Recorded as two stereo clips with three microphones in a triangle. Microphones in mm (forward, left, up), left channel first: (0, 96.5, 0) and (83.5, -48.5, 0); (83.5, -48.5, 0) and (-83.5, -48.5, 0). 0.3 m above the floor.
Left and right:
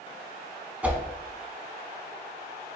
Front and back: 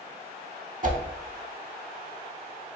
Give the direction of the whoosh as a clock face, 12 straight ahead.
5 o'clock.